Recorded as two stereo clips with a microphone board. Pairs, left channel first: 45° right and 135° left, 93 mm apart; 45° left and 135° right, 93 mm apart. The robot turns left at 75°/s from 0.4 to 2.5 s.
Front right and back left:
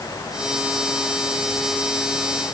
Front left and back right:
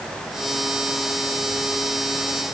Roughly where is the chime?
No chime in this recording.